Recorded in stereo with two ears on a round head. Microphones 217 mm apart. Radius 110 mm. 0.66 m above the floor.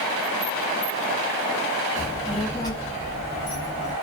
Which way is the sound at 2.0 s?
15° right (ahead or behind).